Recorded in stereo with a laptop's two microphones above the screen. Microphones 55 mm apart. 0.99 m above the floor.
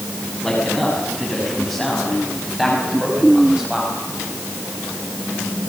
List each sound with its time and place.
0.4 s a man speaking: 5° left (ahead or behind), 6.5 m; by 3.9 s 15° right (ahead or behind), 5 m